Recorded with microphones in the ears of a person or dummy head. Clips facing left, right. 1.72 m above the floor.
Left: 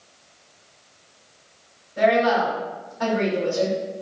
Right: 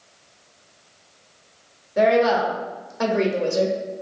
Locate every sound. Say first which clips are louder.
2.0 s a woman speaking: right 1 dB; 70° right (ahead or behind), 1.0 m